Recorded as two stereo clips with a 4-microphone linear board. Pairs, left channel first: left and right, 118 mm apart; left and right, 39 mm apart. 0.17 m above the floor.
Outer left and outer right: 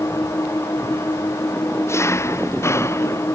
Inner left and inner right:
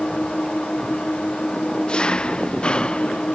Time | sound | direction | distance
0.0 | an engine running | 25° left (ahead or behind) | ?